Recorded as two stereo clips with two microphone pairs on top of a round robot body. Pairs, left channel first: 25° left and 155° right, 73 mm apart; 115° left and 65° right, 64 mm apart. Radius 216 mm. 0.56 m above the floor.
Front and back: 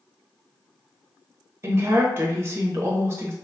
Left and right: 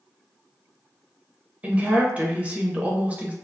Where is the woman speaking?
115° right, 0.9 m.